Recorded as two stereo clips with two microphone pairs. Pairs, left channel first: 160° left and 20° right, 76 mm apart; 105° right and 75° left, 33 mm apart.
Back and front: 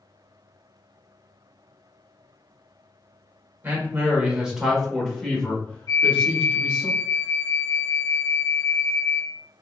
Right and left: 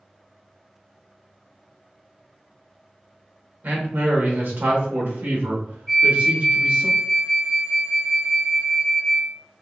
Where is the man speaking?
45° left, 1.6 m; by 6.9 s 100° left, 1.9 m.